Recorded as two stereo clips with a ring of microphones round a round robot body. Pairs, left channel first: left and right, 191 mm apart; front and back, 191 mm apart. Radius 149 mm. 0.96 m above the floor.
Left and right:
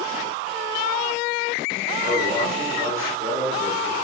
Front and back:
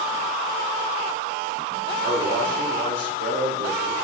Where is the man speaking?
155° right, 3 m.